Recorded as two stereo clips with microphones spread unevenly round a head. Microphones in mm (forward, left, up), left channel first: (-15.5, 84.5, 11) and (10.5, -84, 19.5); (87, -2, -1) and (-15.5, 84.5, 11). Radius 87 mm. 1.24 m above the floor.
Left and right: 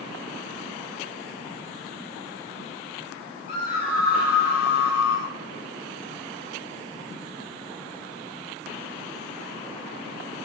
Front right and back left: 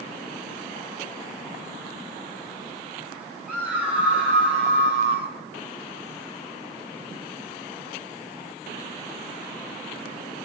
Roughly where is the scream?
Ahead left.